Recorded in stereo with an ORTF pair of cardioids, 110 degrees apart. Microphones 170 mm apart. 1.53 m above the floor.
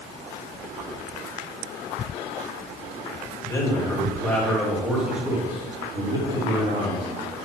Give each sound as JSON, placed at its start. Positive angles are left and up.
{"t": 3.4, "sound": "a man speaking", "azimuth_deg": 20, "distance_m": 2.5}